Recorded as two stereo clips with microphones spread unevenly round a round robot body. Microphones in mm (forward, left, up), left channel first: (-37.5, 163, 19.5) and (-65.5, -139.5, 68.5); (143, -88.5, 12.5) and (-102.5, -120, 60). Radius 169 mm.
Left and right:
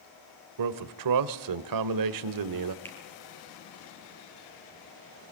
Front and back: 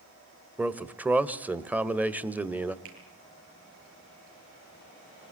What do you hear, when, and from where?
0.6 s a man speaking: 85° right, 1.7 m
2.9 s a finger snap: 165° left, 10 m